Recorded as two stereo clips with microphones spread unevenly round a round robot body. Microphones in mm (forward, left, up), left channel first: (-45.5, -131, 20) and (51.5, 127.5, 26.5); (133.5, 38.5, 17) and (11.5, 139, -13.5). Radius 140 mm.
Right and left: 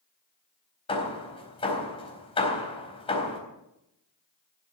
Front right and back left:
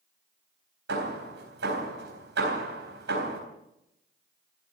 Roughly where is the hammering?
Behind.